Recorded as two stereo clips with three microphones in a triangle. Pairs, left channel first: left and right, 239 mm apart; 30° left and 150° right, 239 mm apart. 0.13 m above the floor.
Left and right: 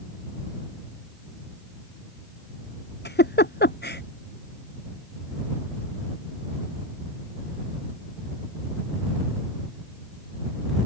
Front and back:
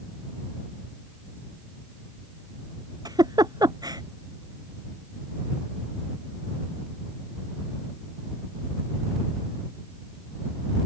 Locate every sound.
3.0 s a giggle: 135° left